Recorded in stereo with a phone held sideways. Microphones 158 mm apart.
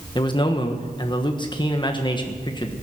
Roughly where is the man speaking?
Left.